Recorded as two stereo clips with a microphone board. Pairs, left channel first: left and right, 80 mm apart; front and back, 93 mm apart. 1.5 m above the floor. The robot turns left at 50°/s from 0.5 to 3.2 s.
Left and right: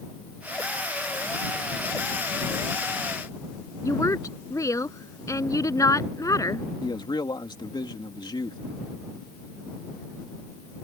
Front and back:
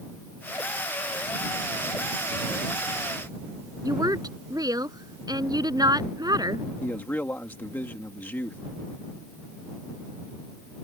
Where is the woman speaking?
135° left.